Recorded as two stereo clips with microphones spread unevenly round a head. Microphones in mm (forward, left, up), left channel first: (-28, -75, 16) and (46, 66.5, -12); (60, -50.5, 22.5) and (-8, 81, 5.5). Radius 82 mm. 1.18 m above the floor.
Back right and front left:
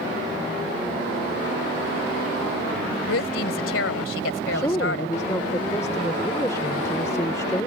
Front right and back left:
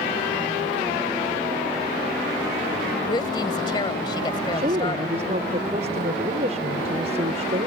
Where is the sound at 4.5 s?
170° left.